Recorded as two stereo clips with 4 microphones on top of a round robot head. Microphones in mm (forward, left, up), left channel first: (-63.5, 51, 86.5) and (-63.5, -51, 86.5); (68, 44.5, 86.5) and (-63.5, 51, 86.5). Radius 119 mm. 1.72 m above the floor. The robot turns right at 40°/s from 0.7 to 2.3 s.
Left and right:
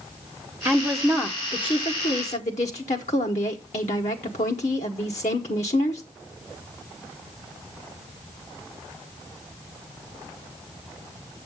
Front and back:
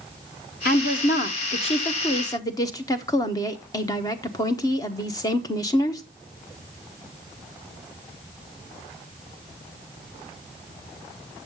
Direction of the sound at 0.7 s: 10° right.